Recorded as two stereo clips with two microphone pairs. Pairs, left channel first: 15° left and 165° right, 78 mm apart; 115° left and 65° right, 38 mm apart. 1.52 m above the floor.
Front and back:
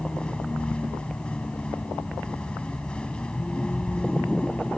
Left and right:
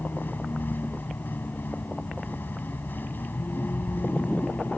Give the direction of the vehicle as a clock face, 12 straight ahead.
9 o'clock.